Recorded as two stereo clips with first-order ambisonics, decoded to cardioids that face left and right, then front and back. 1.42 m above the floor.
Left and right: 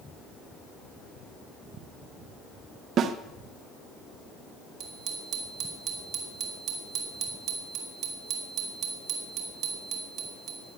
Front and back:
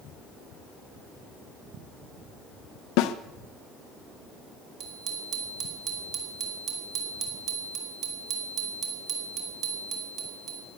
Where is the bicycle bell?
135° right, 2.5 m.